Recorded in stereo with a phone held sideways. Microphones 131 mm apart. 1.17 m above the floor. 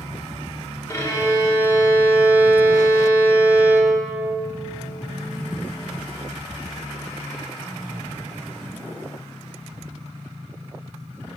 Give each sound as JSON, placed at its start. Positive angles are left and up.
{"t": 0.9, "sound": "a violin", "side_deg": 25, "distance_m": 1.3}